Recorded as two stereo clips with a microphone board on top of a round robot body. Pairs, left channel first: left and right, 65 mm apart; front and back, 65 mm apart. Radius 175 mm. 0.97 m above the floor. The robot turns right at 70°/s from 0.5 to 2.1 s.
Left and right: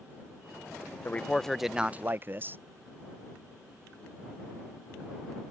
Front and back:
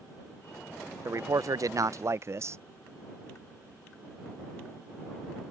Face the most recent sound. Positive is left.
turn(degrees=-145)